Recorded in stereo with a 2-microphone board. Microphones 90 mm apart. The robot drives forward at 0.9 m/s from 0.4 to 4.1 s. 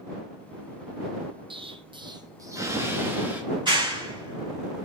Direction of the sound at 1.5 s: 65° right (ahead or behind).